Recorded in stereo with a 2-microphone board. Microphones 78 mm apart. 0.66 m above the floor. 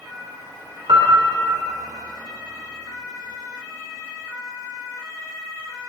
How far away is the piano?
About 2.5 m.